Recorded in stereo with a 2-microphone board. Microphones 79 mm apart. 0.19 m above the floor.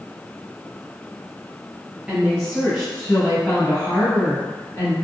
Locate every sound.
2.1 s a woman speaking: 15° right (ahead or behind), 1.4 m; by 4.9 s 30° left (ahead or behind), 1.6 m